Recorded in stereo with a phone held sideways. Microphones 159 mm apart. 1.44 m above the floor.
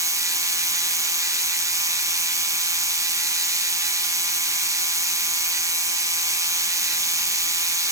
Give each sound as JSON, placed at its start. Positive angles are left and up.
{"t": 0.0, "sound": "a machine running", "side_deg": -20, "distance_m": 0.9}